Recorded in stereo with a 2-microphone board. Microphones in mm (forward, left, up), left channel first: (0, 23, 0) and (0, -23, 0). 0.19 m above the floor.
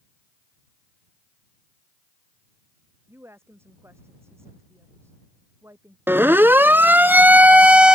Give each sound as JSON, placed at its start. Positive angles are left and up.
{"t": 3.1, "sound": "a woman speaking", "side_deg": -70}
{"t": 6.1, "sound": "a siren", "side_deg": -55}